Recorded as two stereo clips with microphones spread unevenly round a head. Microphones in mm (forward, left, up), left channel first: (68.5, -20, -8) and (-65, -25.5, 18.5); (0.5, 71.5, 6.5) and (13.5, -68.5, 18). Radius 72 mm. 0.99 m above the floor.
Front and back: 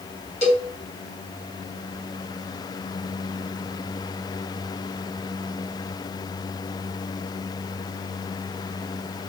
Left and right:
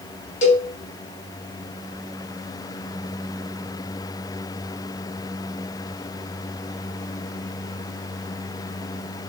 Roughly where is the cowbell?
Ahead left.